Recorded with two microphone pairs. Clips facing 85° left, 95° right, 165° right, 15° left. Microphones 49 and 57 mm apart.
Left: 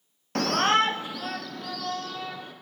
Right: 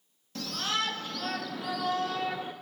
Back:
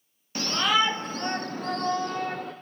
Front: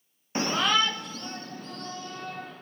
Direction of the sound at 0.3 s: 75° left.